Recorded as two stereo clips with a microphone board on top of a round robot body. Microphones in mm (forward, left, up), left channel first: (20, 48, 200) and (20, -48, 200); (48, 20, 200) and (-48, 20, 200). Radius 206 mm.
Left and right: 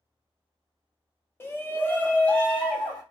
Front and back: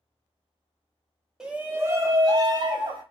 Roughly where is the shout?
Left.